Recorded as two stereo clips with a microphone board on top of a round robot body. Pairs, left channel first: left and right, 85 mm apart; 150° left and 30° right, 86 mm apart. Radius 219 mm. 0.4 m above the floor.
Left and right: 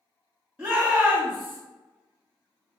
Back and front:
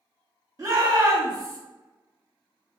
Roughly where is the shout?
Ahead.